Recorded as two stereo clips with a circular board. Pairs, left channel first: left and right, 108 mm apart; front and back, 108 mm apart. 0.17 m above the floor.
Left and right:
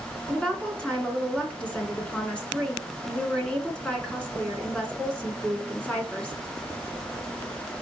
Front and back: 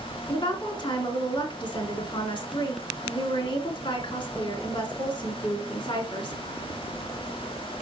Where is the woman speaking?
10° left, 1.7 m.